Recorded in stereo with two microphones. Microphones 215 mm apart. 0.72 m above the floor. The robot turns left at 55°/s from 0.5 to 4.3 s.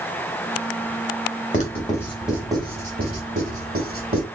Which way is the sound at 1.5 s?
35° left (ahead or behind).